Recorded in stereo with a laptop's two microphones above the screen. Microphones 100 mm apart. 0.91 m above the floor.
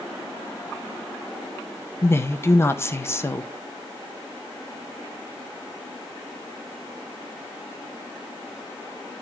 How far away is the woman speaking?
About 0.6 m.